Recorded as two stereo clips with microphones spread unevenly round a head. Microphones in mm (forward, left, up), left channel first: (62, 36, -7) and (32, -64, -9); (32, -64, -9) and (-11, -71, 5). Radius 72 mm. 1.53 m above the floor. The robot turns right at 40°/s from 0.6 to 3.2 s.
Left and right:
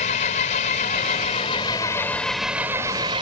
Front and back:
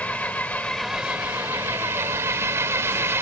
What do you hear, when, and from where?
0.0 s an engine running: 90° left; by 3.2 s 165° right